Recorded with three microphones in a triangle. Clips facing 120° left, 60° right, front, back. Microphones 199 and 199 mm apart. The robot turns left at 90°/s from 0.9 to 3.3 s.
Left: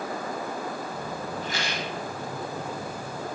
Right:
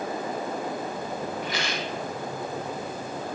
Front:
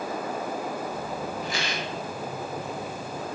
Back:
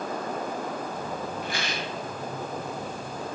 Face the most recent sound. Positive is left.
turn(degrees=-5)